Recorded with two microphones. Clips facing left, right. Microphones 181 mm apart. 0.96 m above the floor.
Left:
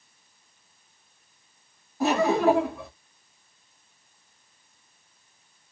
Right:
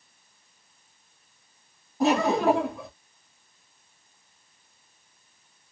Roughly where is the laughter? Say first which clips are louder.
Left 1 dB; right.